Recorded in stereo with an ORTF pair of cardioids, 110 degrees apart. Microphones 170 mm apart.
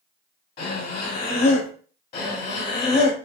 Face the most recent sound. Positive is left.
turn(degrees=65)